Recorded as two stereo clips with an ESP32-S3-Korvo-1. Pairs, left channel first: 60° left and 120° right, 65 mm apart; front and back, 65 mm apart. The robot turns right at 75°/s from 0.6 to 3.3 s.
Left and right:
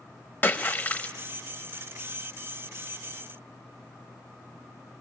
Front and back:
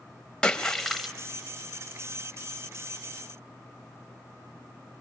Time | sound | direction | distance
0.4 | a splash | 60° left | 0.8 m